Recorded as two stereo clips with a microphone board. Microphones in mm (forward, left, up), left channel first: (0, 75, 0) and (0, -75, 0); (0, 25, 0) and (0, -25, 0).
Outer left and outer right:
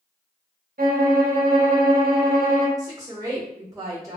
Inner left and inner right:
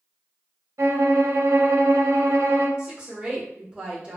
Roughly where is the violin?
Right.